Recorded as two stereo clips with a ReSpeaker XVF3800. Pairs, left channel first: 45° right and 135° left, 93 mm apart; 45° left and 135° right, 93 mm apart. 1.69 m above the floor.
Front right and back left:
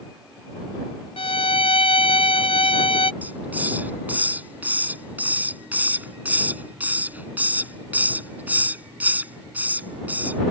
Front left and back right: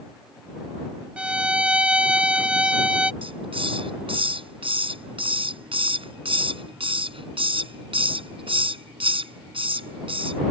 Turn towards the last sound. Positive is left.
turn(degrees=-155)